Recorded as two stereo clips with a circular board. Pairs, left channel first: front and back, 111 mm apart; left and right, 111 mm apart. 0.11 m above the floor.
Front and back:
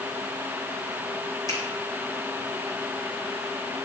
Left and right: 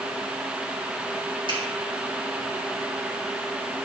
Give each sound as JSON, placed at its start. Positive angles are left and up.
{"t": 1.5, "sound": "a finger snap", "azimuth_deg": -55, "distance_m": 6.0}